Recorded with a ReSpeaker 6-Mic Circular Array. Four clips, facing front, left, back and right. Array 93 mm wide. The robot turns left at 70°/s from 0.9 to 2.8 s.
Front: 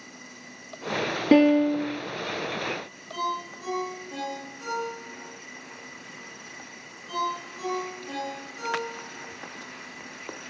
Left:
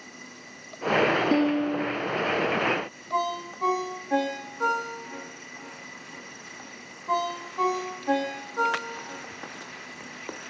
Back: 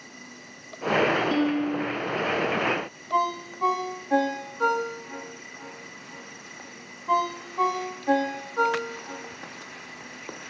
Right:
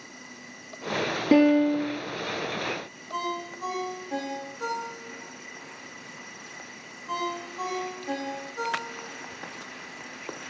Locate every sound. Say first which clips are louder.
1.3 s a piano: right 4 dB, front 6 dB; 20° right, 2 m; by 2.0 s 70° right, 2 m
3.1 s a ringtone: left 4 dB, back 5 dB; 155° left, 8.5 m